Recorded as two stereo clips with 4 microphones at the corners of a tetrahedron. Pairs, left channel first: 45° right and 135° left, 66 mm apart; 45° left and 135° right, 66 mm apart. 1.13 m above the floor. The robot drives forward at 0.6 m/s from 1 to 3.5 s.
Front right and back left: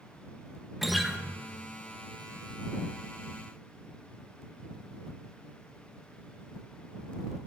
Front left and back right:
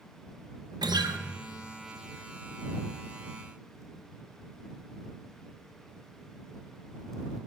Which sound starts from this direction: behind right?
A guitar, at 0.8 s.